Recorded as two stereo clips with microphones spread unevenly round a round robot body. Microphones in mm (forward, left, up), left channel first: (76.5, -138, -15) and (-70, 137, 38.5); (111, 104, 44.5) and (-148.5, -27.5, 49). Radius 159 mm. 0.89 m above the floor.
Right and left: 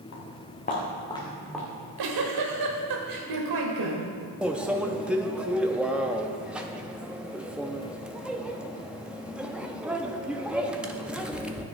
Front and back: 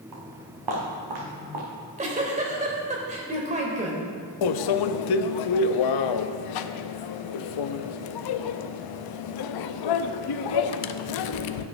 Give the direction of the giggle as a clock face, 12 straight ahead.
7 o'clock.